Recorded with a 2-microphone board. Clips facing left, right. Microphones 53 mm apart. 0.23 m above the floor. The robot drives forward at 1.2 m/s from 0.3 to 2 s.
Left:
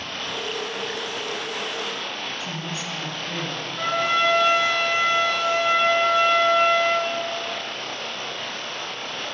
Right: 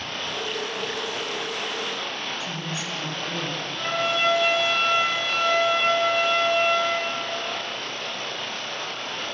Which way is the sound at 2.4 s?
40° left (ahead or behind).